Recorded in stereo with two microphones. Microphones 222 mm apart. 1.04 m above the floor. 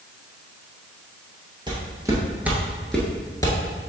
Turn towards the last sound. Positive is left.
turn(degrees=30)  # may be behind; listen again after turning